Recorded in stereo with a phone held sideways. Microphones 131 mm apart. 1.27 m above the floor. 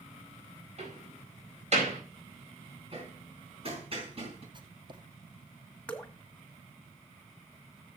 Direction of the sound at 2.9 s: 45° right (ahead or behind).